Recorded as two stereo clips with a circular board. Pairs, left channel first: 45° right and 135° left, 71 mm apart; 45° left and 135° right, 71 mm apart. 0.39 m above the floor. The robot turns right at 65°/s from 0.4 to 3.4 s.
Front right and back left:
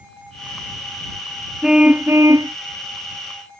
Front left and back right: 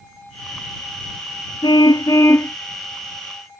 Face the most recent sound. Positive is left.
turn(degrees=165)